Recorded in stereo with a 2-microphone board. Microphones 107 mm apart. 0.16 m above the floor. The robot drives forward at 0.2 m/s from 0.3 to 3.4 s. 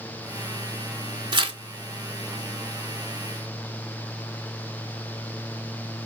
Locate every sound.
1.3 s tearing paper: 50° right (ahead or behind), 0.6 m